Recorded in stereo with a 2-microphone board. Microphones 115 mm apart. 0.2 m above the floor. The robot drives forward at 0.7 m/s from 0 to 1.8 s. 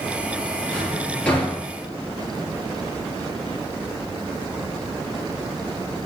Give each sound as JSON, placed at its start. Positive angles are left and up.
{"t": 0.7, "sound": "a drawer", "side_deg": 10, "distance_m": 3.0}